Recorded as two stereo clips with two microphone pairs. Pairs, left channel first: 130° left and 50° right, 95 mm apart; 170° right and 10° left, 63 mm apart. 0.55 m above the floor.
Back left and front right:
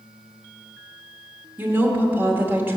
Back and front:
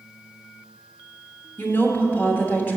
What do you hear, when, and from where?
1.6 s a woman speaking: 115° right, 1.2 m